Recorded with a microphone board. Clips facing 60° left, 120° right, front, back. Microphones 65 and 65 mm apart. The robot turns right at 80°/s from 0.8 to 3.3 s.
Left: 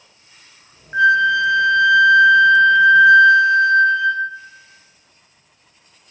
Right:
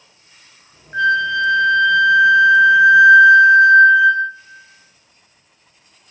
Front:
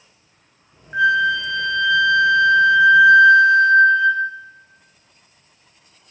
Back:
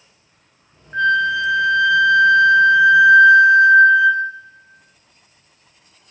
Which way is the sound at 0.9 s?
45° left.